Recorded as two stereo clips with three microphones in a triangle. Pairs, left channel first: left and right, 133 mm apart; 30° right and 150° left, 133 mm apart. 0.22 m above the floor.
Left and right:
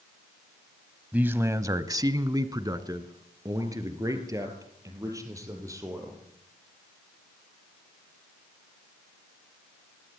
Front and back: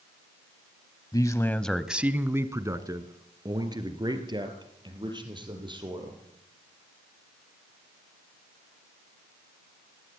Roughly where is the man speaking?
Ahead right.